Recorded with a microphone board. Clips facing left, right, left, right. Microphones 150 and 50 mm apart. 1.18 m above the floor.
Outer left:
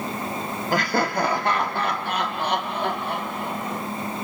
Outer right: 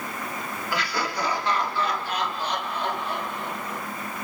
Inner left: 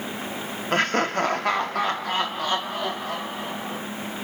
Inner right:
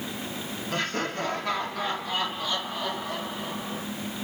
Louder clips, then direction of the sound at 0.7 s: Outer left 7 dB, inner left 8 dB; 45° left (ahead or behind).